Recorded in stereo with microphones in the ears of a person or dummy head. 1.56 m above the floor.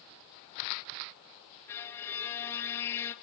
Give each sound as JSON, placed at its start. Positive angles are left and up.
{"t": 1.7, "sound": "a violin", "side_deg": 15, "distance_m": 1.8}